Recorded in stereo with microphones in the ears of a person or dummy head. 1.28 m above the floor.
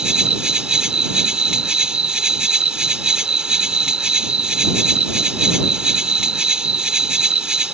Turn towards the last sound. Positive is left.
turn(degrees=0)  # may be behind; listen again after turning